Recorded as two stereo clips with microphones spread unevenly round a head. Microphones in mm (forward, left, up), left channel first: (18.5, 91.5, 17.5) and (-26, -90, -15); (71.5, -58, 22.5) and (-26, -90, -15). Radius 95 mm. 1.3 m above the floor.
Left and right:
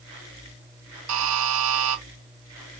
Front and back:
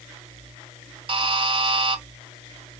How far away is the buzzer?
About 1.4 m.